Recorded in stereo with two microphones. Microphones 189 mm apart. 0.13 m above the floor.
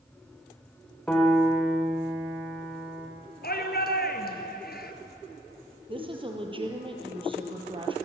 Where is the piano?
5° left (ahead or behind), 4 m.